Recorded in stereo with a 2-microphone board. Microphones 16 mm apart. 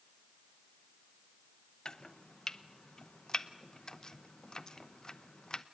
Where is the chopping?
50° left (ahead or behind), 0.9 m.